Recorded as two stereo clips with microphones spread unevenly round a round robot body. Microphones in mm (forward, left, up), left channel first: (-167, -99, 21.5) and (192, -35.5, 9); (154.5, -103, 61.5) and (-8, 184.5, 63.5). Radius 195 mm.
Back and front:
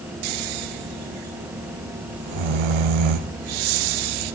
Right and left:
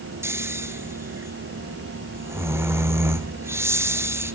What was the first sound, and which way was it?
Snoring, 35° left.